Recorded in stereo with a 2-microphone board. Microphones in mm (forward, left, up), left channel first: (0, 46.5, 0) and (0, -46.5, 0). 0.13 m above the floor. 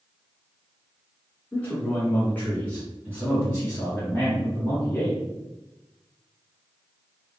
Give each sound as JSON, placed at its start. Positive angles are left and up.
{"t": 1.5, "sound": "a man speaking", "side_deg": 20, "distance_m": 1.2}